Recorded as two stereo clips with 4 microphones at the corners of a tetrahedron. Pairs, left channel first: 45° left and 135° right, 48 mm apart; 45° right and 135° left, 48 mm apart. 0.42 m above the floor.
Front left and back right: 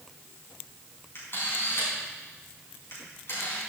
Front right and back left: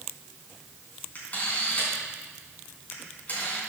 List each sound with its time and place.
1.1 s a camera shutter: 10° left, 4.5 m